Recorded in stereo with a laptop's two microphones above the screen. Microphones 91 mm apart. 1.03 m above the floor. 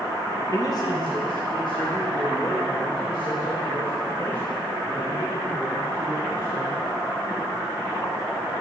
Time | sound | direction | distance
0.5 | a man speaking | 35° left (ahead or behind) | 0.7 m